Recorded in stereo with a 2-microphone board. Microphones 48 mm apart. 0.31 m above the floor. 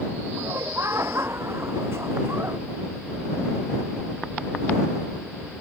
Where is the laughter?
65° right (ahead or behind); by 2.6 s 55° right (ahead or behind).